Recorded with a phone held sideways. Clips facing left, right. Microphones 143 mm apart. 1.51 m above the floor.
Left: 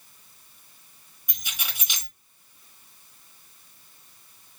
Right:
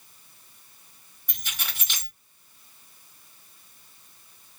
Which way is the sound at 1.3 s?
15° left (ahead or behind).